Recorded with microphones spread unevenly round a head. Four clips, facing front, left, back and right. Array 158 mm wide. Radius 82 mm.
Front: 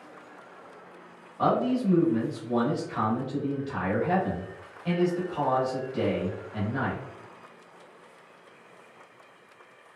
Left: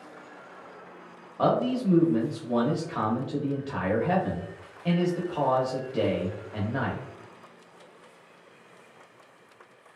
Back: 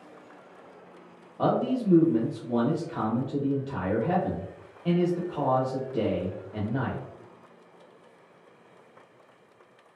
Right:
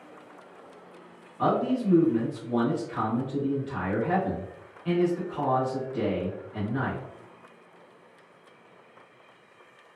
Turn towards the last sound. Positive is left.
turn(degrees=130)